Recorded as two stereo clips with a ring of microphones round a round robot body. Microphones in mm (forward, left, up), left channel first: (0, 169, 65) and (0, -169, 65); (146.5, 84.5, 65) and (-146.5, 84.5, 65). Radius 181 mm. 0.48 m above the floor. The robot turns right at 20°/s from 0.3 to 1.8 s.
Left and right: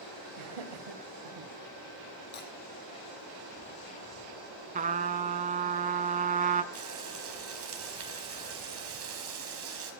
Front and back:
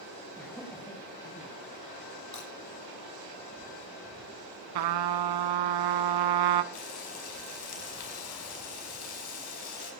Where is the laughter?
90° right, 2.5 m; by 1.5 s 65° right, 2.5 m.